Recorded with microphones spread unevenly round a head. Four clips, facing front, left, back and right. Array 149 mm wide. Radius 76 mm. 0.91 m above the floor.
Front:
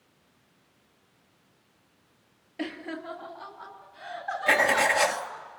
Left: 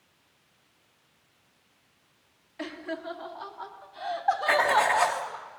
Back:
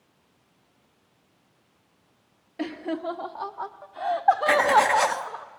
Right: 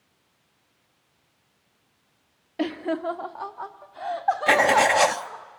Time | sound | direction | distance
2.6 | laughter | 105° right | 1.0 m
4.5 | writing | 95° right | 0.9 m